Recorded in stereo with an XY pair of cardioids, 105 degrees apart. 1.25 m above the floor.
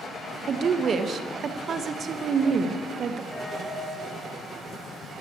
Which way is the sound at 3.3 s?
5° left.